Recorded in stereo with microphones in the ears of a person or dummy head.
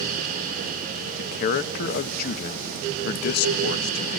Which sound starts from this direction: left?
A man speaking, at 1.2 s.